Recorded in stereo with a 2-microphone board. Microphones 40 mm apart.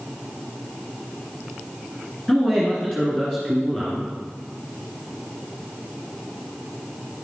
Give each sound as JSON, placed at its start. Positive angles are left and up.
{"t": 2.3, "sound": "a man speaking", "side_deg": 15, "distance_m": 2.0}